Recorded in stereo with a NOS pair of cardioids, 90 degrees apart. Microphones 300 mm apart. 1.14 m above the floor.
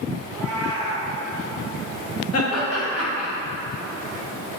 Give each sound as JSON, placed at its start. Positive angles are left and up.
{"t": 0.2, "sound": "a cat meowing", "azimuth_deg": 10, "distance_m": 1.7}
{"t": 2.3, "sound": "laughter", "azimuth_deg": 50, "distance_m": 1.1}